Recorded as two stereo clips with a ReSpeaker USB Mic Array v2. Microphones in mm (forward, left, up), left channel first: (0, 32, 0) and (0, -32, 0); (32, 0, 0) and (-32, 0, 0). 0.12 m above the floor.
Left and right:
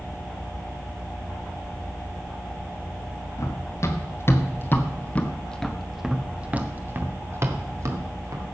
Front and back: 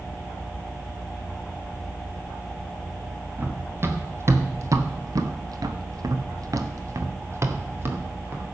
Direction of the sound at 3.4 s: 125° left.